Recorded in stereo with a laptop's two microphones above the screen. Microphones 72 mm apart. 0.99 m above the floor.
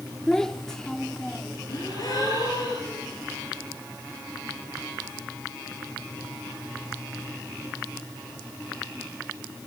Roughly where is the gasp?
Left.